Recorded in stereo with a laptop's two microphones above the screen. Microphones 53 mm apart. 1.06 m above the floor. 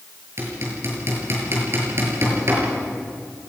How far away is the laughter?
No laughter in this recording.